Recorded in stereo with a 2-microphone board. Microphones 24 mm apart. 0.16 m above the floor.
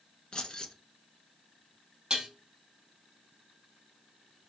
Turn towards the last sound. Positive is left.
turn(degrees=-35)  # may be behind; listen again after turning